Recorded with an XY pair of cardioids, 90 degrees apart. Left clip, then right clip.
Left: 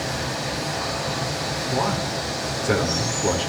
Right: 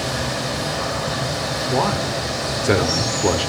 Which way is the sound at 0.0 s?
55° right.